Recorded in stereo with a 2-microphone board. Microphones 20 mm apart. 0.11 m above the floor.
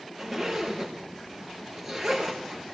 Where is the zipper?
10° right (ahead or behind), 5 m.